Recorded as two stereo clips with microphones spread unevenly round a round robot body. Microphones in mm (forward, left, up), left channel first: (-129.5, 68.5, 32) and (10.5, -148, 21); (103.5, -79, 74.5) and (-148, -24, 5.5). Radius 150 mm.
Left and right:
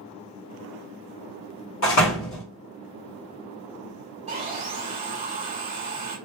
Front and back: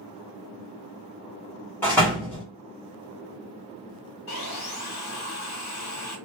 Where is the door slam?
70° left, 1.4 m.